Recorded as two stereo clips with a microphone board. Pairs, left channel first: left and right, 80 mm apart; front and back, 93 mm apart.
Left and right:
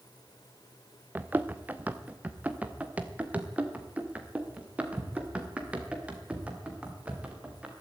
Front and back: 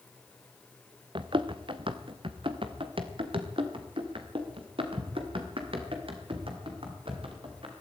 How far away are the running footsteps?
About 1.4 m.